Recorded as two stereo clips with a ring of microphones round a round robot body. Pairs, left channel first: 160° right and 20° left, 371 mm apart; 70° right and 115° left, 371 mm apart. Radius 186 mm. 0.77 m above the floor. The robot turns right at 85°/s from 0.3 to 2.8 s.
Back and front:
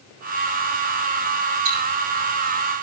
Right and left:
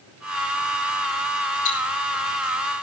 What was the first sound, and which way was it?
Ticking, 25° right.